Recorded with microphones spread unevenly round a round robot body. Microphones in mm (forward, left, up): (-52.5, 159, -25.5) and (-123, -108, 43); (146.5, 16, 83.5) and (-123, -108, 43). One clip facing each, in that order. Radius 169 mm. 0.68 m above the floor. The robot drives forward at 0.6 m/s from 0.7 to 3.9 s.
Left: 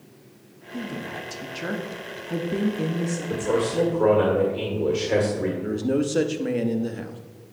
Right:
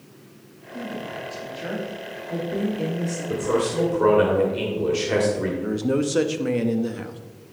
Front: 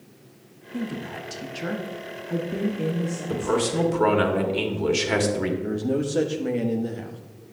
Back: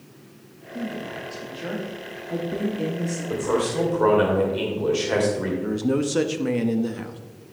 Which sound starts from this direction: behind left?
A man speaking, at 5.6 s.